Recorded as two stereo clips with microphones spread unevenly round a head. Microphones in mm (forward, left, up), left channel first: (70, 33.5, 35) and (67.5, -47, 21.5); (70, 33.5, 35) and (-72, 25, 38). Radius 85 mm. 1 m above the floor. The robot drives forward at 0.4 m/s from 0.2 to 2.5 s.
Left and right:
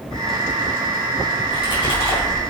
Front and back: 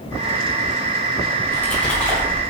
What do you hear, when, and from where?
1.4 s a splash: 85° left, 4 m; by 2.4 s 90° left, 4 m